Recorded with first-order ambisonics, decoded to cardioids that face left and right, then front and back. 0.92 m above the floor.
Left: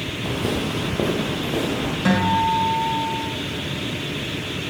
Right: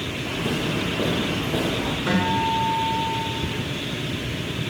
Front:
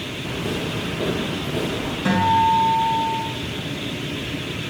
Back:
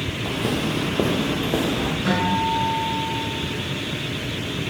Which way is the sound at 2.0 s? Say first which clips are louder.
Left 4 dB, front 6 dB; 75° left.